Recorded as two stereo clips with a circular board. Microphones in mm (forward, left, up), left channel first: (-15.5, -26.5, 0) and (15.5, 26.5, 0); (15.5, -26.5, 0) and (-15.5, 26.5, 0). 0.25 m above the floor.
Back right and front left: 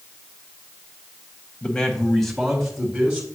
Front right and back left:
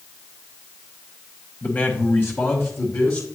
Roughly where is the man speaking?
Right.